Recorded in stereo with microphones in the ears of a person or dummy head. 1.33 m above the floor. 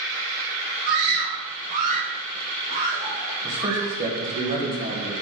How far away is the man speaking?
About 1.8 m.